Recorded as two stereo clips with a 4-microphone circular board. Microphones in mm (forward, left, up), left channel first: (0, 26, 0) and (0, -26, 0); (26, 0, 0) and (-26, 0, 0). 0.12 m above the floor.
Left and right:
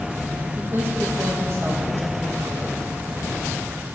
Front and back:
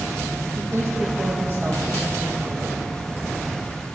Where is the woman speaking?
135° right, 4 m.